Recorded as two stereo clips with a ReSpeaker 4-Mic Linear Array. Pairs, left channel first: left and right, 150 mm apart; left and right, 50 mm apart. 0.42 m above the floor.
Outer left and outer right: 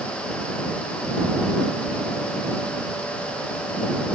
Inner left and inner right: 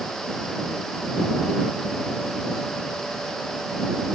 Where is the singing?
I don't hear singing.